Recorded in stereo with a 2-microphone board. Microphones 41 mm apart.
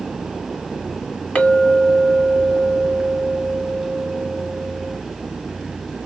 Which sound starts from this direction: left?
A clink, at 1.4 s.